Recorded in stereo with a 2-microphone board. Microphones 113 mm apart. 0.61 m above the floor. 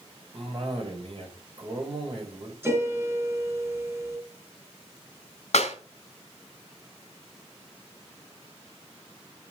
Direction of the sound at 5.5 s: 75° left (ahead or behind).